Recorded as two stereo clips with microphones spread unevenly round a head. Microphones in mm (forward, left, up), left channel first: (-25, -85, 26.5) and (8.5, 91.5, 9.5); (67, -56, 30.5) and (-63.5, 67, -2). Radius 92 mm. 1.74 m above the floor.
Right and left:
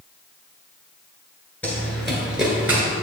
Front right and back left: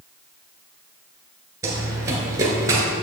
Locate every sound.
1.6 s running footsteps: 150° right, 1.7 m; by 2.8 s 105° left, 1.7 m